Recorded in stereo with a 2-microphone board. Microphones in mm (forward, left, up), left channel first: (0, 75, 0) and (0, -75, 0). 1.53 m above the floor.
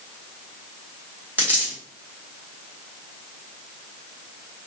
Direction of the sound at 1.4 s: 10° right (ahead or behind).